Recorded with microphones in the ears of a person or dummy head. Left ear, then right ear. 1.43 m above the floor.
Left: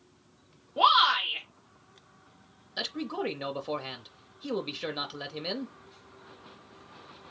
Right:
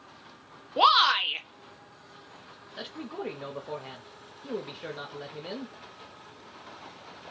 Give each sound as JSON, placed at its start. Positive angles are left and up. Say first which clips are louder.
{"t": 0.8, "sound": "a shout", "louder": "right 1 dB", "side_deg": -80, "distance_m": 1.2}
{"t": 2.8, "sound": "a man speaking", "louder": "left 5 dB", "side_deg": 35, "distance_m": 0.6}